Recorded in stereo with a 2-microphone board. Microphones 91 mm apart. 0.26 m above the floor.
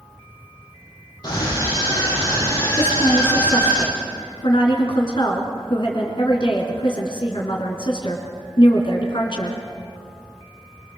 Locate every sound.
1.2 s a scream: 45° left (ahead or behind), 7.5 m; by 3.8 s 30° left (ahead or behind), 7.5 m
2.8 s a woman speaking: 55° left (ahead or behind), 3.5 m